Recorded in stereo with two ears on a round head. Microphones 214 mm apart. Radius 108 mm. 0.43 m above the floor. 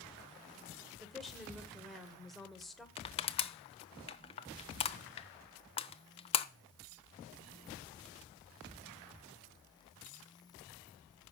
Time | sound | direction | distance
1.0 | a woman speaking | centre (ahead or behind) | 1.7 m
3.0 | crushing | 25° left (ahead or behind) | 0.8 m